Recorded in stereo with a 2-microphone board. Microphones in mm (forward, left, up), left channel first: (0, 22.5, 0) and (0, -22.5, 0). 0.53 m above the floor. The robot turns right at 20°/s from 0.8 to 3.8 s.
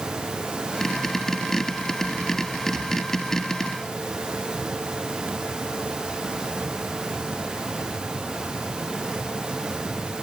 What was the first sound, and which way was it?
Only background noise.